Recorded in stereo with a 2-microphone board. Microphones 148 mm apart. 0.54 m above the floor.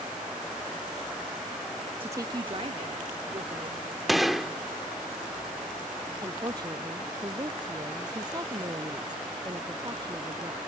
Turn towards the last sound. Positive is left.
turn(degrees=-30)  # may be behind; listen again after turning